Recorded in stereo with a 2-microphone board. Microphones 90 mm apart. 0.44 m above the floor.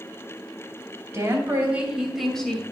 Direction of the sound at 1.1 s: 30° right (ahead or behind).